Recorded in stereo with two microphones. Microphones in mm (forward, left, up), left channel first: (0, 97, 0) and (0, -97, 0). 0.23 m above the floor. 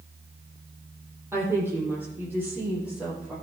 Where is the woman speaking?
15° right (ahead or behind), 8.5 m; by 3.3 s 5° right (ahead or behind), 10 m.